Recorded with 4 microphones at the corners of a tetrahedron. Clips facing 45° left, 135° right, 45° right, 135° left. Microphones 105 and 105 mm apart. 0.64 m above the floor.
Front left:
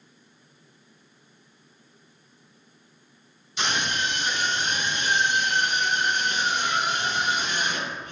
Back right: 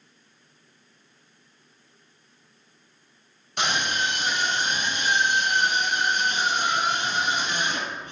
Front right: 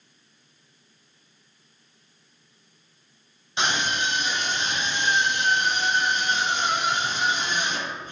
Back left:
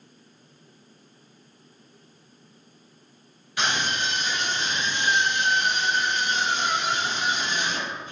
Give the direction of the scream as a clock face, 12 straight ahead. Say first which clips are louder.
Back right 1 dB, front right 1 dB; 4 o'clock.